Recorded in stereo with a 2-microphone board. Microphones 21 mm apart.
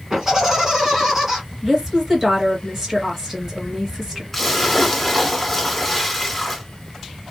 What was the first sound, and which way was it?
Laughter, 15° right (ahead or behind).